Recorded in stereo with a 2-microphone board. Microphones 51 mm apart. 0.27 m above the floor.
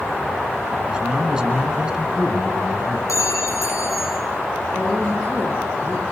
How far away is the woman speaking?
About 10 m.